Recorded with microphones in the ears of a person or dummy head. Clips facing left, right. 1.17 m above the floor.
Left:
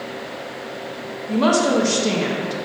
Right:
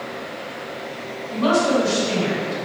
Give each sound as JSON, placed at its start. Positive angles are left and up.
{"t": 1.3, "sound": "a woman speaking", "side_deg": 70, "distance_m": 1.1}